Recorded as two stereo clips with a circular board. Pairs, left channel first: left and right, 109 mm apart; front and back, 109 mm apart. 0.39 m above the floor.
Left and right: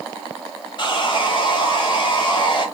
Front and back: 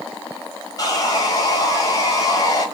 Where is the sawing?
50° left, 1.0 m.